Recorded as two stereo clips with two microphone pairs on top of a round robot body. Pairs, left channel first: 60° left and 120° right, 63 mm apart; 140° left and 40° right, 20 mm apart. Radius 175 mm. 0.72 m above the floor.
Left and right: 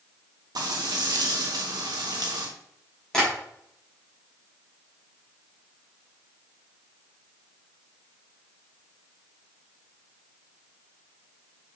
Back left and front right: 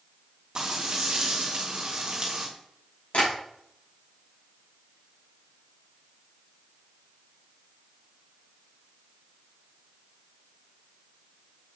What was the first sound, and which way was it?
Frying, 100° right.